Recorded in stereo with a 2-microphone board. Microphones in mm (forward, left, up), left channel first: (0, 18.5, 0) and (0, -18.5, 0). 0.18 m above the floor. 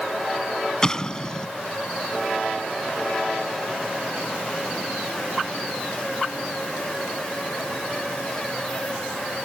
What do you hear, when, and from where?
0.8 s an explosion: 20° left (ahead or behind)